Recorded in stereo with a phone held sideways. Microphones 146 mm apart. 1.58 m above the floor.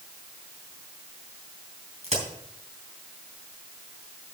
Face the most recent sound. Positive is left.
turn(degrees=-50)  # may be behind; listen again after turning